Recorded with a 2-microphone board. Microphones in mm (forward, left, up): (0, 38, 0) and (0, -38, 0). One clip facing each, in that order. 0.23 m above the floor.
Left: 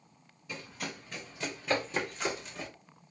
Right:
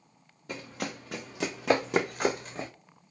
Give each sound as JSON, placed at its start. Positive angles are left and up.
{"t": 0.5, "sound": "running footsteps", "side_deg": -55, "distance_m": 1.0}